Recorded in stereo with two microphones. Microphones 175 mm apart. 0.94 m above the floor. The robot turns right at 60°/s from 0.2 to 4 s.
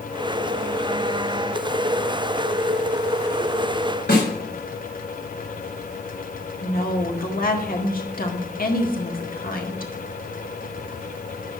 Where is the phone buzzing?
I don't hear a phone buzzing.